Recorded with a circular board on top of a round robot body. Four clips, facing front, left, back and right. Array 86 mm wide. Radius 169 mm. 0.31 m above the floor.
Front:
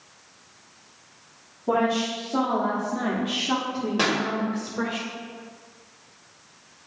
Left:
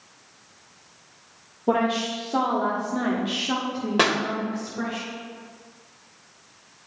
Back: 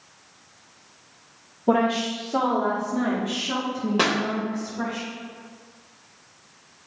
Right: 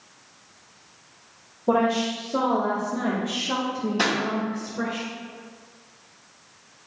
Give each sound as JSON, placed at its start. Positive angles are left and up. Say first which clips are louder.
{"t": 1.7, "sound": "a woman speaking", "louder": "right 1 dB, back 2 dB", "azimuth_deg": 120, "distance_m": 1.9}
{"t": 4.0, "sound": "a pop", "louder": "left 4 dB, back 1 dB", "azimuth_deg": 100, "distance_m": 1.7}